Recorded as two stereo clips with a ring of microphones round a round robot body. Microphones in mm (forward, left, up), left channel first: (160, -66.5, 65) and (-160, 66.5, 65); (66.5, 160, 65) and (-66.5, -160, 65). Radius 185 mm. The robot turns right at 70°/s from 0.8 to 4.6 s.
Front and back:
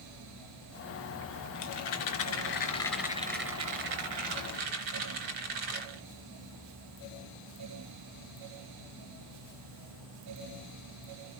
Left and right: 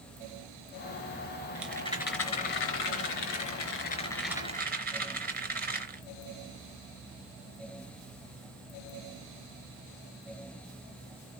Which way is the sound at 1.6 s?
30° right.